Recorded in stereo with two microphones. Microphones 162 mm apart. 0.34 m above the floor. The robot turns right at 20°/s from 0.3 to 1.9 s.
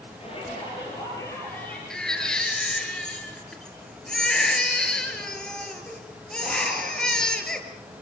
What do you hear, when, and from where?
0.2 s a shout: 40° left (ahead or behind), 8 m; by 1.8 s 10° left (ahead or behind), 8 m
1.9 s a baby crying: 5° left (ahead or behind), 4 m